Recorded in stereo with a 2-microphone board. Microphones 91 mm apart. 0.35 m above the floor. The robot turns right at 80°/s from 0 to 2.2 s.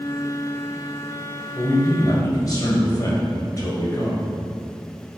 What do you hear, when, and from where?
1.6 s a man speaking: 65° left, 1.6 m; by 4.3 s 115° left, 1.6 m